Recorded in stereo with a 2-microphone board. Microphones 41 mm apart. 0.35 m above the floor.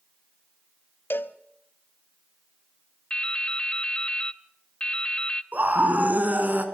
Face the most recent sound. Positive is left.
turn(degrees=-45)  # may be behind; listen again after turning